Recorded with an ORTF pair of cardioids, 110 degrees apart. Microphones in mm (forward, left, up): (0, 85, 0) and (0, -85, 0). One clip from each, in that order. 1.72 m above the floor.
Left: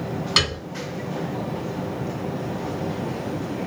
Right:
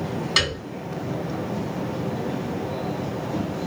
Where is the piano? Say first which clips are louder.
Left 1 dB; 10° left, 2 m.